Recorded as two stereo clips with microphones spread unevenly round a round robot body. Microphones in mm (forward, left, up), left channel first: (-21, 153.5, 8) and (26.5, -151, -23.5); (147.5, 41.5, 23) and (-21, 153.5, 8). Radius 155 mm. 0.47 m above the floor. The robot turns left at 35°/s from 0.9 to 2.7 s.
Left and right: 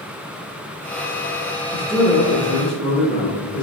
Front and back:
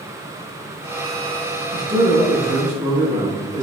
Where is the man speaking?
155° right, 0.9 m; by 3.6 s 170° left, 0.9 m.